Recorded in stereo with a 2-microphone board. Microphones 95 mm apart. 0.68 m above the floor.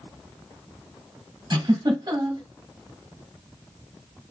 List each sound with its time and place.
1.5 s a giggle: 45° right (ahead or behind), 2.5 m